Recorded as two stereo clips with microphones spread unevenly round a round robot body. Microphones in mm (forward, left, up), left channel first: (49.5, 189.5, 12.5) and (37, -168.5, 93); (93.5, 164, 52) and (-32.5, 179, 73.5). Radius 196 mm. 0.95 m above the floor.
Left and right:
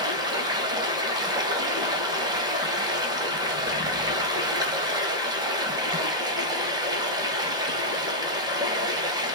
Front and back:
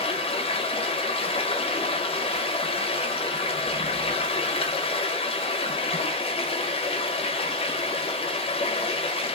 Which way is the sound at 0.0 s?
5° right.